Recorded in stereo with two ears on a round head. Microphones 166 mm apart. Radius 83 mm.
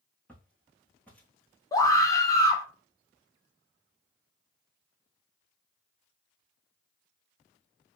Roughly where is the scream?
Centre.